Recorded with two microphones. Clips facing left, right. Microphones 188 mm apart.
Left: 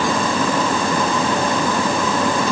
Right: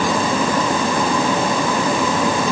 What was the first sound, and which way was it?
Only background noise.